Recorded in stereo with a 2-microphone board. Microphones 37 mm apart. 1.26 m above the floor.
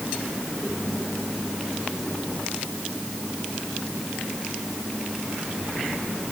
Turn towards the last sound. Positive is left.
No sound to turn to.